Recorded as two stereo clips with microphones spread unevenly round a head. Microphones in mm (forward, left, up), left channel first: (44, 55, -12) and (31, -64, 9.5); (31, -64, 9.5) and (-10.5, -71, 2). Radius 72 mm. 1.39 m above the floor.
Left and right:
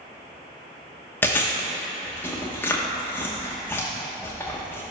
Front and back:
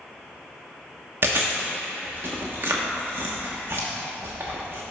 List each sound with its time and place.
1.2 s chewing: 165° left, 1.0 m